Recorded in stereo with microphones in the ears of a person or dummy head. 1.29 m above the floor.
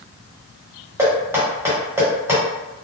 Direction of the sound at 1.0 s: 10° right (ahead or behind).